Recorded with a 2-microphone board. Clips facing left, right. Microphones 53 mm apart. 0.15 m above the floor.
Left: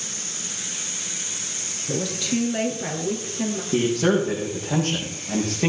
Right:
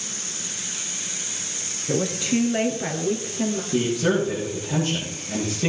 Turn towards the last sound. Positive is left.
turn(degrees=55)  # may be behind; listen again after turning